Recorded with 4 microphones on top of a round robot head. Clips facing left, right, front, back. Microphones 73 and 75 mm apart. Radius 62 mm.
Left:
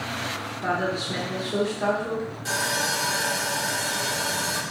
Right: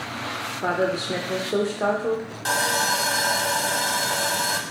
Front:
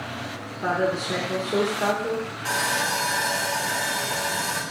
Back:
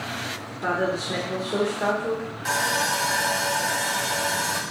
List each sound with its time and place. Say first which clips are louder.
0.6 s a woman speaking: right 3 dB, front 1 dB; 85° right, 1.0 m
2.5 s sawing: right 5 dB, back 2 dB; 95° right, 0.8 m